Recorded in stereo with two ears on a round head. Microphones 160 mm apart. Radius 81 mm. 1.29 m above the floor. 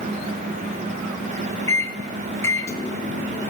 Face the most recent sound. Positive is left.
turn(degrees=15)  # may be behind; listen again after turning